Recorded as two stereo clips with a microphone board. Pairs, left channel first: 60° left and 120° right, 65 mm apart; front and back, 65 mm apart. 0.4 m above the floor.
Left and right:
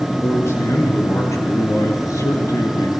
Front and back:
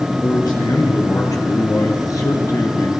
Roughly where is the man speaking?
Ahead.